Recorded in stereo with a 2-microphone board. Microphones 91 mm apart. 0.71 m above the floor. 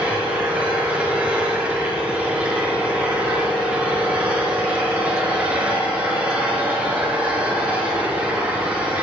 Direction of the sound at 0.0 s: 15° right (ahead or behind).